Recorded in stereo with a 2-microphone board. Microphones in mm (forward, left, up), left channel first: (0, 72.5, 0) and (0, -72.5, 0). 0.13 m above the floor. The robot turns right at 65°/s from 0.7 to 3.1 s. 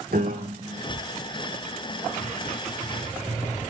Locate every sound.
0.1 s a piano: 85° right, 1.1 m; by 0.8 s 80° right, 1.1 m